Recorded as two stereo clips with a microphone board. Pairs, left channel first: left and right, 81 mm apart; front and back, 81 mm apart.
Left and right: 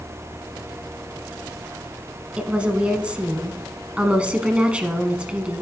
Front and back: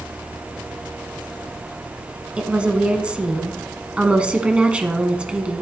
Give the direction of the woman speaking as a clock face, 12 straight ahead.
4 o'clock.